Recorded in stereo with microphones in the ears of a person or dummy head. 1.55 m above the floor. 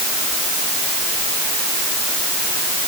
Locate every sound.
Only background noise.